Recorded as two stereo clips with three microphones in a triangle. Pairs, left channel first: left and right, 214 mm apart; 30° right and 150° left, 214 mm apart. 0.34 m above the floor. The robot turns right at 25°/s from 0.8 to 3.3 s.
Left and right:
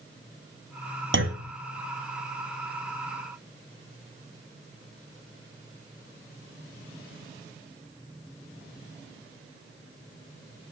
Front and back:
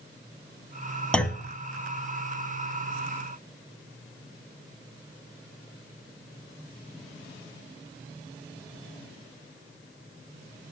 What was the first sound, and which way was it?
A clunk, 115° right.